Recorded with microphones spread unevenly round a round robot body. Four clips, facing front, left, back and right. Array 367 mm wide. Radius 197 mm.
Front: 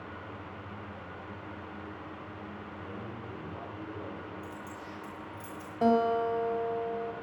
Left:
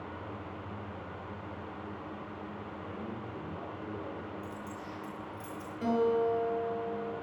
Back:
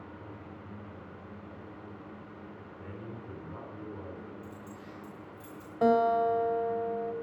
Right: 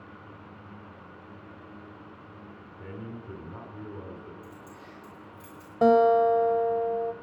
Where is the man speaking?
90° right, 4.5 m.